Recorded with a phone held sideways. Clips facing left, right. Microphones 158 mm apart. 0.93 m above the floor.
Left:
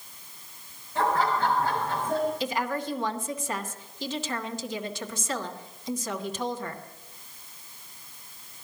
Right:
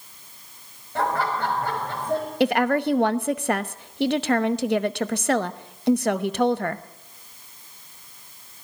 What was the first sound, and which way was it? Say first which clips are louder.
Laughter: even; 70° right (ahead or behind).